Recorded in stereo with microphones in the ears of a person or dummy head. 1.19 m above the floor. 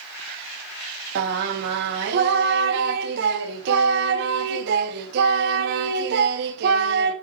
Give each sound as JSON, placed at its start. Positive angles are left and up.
{"t": 1.1, "sound": "singing", "side_deg": -60, "distance_m": 1.3}